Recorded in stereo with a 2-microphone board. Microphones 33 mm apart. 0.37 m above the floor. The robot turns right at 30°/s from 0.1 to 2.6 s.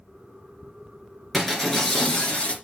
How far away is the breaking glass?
About 3 m.